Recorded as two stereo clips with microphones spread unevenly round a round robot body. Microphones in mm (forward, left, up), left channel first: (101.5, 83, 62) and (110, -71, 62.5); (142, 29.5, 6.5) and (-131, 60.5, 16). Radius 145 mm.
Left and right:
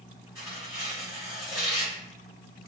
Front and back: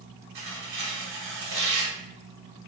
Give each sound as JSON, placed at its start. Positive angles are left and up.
{"t": 0.3, "sound": "tearing paper", "azimuth_deg": -165, "distance_m": 1.2}